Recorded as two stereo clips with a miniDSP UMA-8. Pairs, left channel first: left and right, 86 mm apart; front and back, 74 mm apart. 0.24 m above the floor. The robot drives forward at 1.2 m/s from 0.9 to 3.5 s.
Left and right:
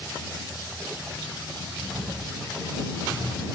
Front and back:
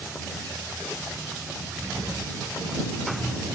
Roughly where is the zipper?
Behind.